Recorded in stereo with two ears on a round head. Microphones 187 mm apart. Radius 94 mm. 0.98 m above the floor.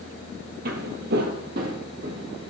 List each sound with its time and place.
0.7 s footsteps: 50° right (ahead or behind), 1.5 m; by 2.5 s 30° right (ahead or behind), 3 m